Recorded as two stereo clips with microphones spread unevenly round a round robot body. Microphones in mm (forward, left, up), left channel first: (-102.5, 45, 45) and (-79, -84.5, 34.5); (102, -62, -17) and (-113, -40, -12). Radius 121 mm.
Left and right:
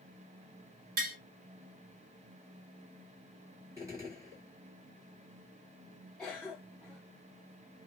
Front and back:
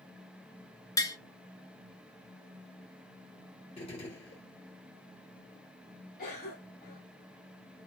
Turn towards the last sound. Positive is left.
turn(degrees=5)